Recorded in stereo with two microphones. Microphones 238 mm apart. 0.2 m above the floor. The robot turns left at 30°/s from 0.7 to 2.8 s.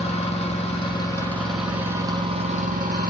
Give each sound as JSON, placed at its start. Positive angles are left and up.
{"t": 0.0, "sound": "an engine running", "azimuth_deg": 25, "distance_m": 1.6}